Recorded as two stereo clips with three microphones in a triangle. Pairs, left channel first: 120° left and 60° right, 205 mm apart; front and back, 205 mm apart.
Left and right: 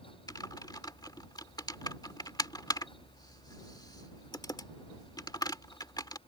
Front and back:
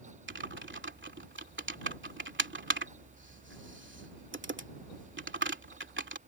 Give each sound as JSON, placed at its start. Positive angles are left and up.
{"t": 0.3, "sound": "typing on a keyboard", "azimuth_deg": -170}